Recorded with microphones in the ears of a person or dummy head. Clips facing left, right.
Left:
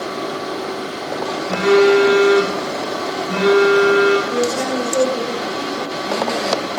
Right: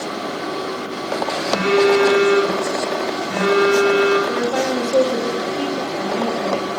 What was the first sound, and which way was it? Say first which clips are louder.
A phone buzzing: left 3 dB; 55° left (ahead or behind).